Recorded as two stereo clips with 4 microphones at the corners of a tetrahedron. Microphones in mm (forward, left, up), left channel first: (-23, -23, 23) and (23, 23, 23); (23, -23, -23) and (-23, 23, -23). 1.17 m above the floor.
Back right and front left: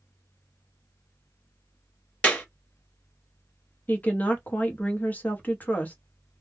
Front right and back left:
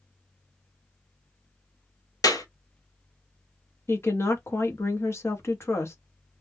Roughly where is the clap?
Ahead right.